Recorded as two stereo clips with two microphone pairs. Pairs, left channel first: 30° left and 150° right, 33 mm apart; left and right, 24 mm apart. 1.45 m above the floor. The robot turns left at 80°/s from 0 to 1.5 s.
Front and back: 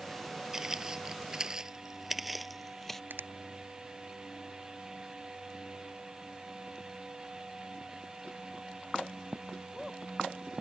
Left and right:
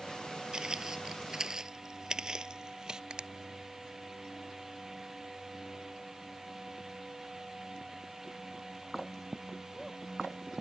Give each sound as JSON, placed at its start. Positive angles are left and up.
{"t": 0.5, "sound": "footsteps", "azimuth_deg": -80}
{"t": 3.1, "sound": "a finger snap", "azimuth_deg": -135}